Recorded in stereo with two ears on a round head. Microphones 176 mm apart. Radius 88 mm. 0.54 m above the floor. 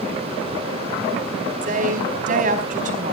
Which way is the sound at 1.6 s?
45° right (ahead or behind).